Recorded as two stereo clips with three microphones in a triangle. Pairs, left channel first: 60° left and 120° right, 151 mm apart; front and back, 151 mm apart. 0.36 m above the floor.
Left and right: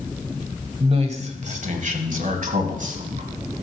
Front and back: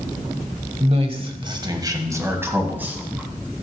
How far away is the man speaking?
About 1.3 m.